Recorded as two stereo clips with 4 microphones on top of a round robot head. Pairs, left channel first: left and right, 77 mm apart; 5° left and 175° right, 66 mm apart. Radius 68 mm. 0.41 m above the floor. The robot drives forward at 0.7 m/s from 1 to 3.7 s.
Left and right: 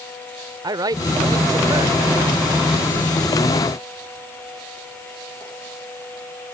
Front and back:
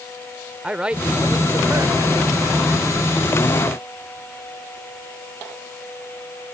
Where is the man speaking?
100° right; by 2.0 s 130° right.